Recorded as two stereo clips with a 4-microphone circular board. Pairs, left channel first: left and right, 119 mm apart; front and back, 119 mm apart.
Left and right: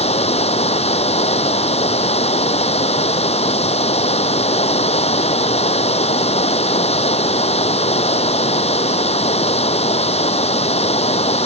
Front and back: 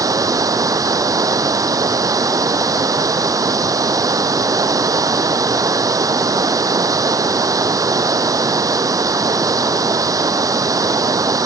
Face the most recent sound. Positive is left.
turn(degrees=120)